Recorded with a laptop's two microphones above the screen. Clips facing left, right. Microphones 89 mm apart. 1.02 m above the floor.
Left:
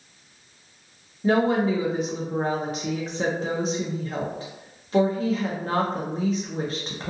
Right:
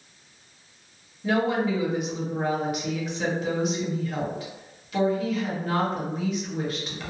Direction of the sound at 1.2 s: 35° left (ahead or behind).